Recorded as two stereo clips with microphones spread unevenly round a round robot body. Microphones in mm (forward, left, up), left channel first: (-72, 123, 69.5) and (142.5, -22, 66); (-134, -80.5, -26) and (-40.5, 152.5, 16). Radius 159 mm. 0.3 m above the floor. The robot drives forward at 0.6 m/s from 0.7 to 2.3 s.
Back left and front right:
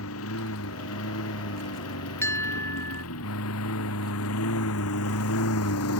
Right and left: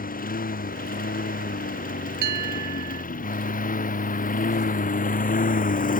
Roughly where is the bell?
Ahead left.